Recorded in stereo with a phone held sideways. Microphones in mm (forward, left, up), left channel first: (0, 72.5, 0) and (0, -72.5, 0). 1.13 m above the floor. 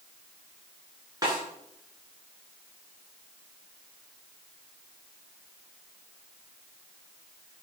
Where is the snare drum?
25° right (ahead or behind), 8 m.